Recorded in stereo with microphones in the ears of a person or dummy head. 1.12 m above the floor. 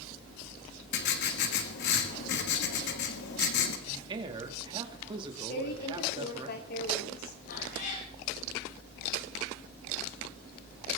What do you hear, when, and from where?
0.9 s writing: 60° left (ahead or behind), 1.7 m
3.9 s a man speaking: 25° right (ahead or behind), 2 m
5.5 s a woman speaking: 55° left (ahead or behind), 3 m
7.5 s a cat meowing: 60° left (ahead or behind), 8 m